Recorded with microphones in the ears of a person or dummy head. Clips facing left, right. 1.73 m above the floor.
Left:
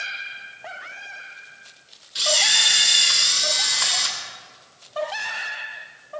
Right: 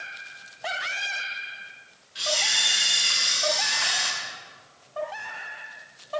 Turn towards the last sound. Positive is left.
turn(degrees=55)  # may be behind; listen again after turning